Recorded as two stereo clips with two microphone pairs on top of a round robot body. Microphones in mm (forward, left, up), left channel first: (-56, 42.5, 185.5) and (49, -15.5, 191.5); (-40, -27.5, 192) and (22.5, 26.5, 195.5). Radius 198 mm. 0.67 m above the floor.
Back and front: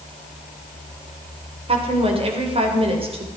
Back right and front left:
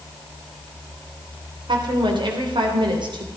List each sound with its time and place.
1.7 s a woman speaking: 10° left, 3 m